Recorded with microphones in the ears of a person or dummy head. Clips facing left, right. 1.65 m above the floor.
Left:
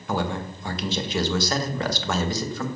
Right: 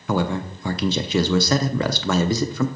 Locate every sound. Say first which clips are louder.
0.1 s a man speaking: right 4 dB; 65° right (ahead or behind), 0.8 m